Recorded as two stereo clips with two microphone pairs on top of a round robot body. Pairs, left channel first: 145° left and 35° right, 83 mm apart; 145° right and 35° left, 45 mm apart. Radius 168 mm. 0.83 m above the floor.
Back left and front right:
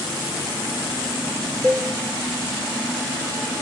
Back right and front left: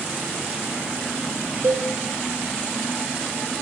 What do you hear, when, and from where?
1.6 s a cowbell: 60° left, 3.5 m